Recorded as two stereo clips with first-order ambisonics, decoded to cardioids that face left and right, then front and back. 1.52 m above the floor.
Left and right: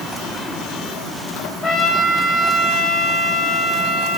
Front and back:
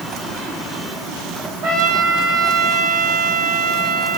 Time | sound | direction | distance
1.6 | a trumpet | 170° left | 2 m